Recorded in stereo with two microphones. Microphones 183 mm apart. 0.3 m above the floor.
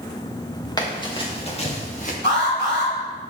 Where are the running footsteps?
20° left (ahead or behind), 3.5 m; by 2.1 s 45° left (ahead or behind), 3 m.